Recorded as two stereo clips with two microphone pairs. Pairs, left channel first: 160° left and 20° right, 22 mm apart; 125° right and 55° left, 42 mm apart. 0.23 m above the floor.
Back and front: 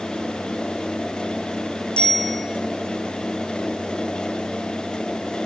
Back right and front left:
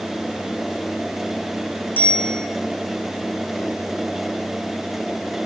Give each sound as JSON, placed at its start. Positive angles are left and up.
{"t": 2.0, "sound": "a bicycle bell", "azimuth_deg": -175, "distance_m": 9.5}